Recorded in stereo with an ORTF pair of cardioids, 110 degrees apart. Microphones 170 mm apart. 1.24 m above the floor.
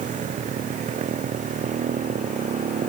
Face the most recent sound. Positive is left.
turn(degrees=-45)